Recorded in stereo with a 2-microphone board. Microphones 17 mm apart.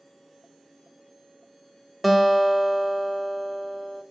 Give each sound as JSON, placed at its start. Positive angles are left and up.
{"t": 2.0, "sound": "a guitar", "side_deg": 5, "distance_m": 0.6}